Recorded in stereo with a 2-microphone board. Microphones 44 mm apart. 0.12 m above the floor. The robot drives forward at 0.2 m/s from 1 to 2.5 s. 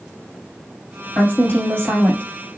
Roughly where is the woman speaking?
Left.